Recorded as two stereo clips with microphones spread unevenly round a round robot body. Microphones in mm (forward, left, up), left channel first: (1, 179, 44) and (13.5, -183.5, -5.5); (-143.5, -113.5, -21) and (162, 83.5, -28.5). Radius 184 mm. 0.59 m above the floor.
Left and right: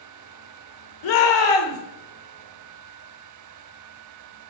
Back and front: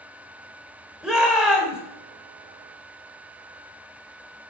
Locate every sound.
1.0 s a shout: 120° left, 2.5 m